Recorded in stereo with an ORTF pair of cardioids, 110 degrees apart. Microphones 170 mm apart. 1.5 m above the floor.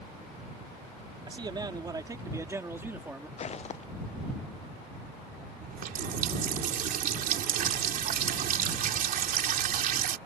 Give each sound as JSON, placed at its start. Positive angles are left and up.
{"t": 1.3, "sound": "a man speaking", "azimuth_deg": -30}
{"t": 3.4, "sound": "footsteps", "azimuth_deg": 40}
{"t": 5.6, "sound": "a running tap", "azimuth_deg": -60}